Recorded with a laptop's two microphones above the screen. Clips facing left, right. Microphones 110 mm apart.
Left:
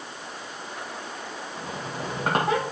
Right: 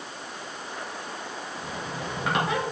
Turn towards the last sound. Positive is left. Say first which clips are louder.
# left 2 dB
turn(degrees=35)  # may be behind; listen again after turning